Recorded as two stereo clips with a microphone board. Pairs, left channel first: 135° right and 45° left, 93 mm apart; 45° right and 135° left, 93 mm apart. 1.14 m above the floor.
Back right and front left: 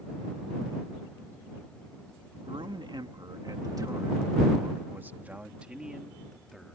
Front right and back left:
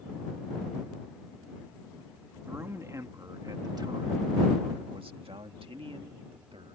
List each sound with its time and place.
2.5 s a man speaking: 70° left; by 6.8 s 135° left